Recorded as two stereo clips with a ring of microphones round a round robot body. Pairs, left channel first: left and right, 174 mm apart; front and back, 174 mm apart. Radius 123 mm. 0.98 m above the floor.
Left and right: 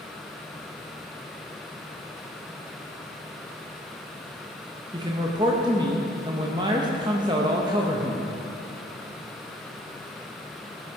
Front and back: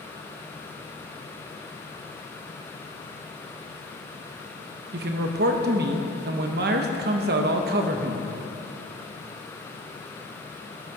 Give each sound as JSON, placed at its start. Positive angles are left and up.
{"t": 4.9, "sound": "a man speaking", "azimuth_deg": -160, "distance_m": 0.8}